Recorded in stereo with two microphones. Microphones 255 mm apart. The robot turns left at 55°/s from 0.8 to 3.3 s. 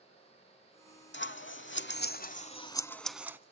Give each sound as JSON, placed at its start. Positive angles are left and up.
{"t": 1.1, "sound": "scissors", "side_deg": 45, "distance_m": 0.6}